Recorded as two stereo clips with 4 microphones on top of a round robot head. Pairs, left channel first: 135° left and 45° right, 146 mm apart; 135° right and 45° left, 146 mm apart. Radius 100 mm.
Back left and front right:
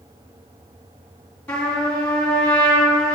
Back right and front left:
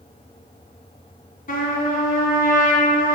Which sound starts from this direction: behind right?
A trumpet, at 1.5 s.